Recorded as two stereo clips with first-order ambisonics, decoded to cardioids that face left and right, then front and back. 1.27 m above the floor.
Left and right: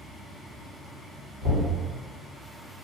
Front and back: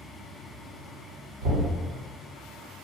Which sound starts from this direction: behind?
Knocking, at 1.4 s.